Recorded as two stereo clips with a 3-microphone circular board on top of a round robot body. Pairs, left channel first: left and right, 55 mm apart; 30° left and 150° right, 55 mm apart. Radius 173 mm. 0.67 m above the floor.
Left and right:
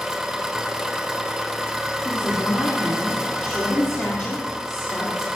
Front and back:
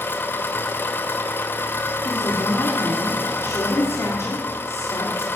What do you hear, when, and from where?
0.0 s an engine running: 10° right, 1.3 m
2.0 s a woman speaking: 40° left, 2 m